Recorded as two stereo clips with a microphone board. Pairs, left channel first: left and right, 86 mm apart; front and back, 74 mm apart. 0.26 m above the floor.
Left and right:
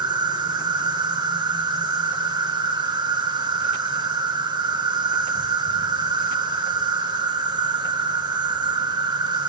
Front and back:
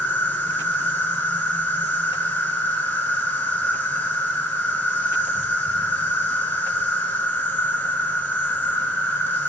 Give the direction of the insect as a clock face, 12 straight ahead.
2 o'clock.